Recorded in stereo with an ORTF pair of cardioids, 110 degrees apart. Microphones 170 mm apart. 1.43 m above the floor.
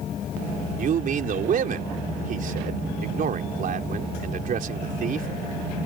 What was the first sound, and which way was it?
A man speaking, 55° right.